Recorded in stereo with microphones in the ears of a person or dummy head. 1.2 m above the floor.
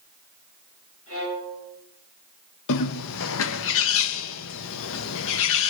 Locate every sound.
1.1 s a violin: 85° left, 7 m
2.7 s a bird: 70° left (ahead or behind), 0.7 m